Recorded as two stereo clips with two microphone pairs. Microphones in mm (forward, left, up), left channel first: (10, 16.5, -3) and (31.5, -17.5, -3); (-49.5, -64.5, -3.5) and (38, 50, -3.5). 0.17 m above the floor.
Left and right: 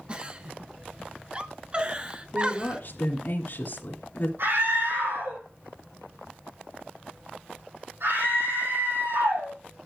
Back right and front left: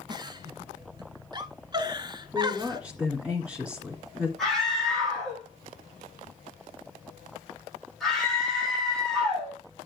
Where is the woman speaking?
135° left, 2.5 m.